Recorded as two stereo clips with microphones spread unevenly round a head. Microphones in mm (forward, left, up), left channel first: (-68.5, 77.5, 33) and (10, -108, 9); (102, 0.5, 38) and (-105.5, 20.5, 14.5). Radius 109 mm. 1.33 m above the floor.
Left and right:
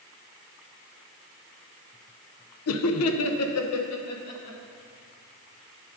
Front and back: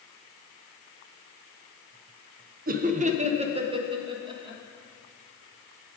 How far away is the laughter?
About 0.7 m.